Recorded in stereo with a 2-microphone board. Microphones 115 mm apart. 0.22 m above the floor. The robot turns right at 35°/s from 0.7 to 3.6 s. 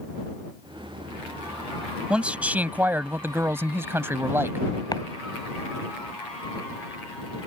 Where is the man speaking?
10° right (ahead or behind); by 4.7 s 20° right (ahead or behind).